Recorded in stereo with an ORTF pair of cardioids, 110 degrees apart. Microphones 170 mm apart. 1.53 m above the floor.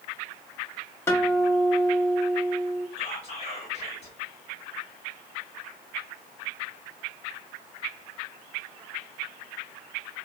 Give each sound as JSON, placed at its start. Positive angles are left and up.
{"t": 1.1, "sound": "a guitar", "azimuth_deg": 15, "distance_m": 1.2}
{"t": 3.0, "sound": "whispering", "azimuth_deg": 40, "distance_m": 1.4}